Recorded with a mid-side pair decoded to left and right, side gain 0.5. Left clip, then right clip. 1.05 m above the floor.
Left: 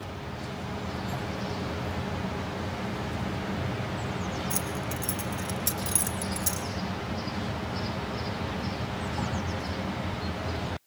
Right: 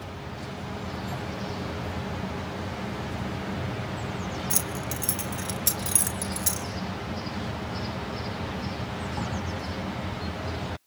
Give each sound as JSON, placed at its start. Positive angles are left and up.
{"t": 4.5, "sound": "keys jangling", "azimuth_deg": -40, "distance_m": 3.0}